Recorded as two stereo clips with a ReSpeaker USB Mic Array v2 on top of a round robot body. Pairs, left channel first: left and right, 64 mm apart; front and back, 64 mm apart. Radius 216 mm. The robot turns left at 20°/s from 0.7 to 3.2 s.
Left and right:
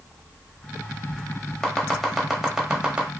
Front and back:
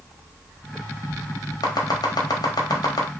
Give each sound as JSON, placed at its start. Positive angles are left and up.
{"t": 1.6, "sound": "chopping", "azimuth_deg": 10, "distance_m": 0.7}